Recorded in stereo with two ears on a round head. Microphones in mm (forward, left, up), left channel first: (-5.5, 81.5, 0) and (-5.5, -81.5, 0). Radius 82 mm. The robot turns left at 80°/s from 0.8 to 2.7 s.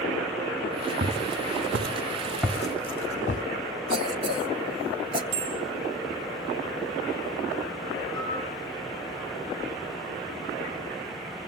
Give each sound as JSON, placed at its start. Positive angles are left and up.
{"t": 1.0, "sound": "footsteps", "side_deg": -40, "distance_m": 2.5}
{"t": 3.9, "sound": "a cough", "side_deg": -30, "distance_m": 1.4}
{"t": 5.3, "sound": "a bell", "side_deg": -80, "distance_m": 2.5}
{"t": 8.2, "sound": "a piano", "side_deg": -65, "distance_m": 5.5}